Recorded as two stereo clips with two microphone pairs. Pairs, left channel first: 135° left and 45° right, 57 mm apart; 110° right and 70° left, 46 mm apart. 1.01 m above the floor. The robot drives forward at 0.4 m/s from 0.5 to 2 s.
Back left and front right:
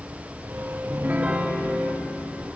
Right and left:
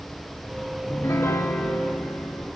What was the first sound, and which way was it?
A piano, 95° right.